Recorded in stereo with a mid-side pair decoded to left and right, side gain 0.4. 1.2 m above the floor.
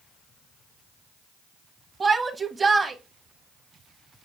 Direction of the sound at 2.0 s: 40° right.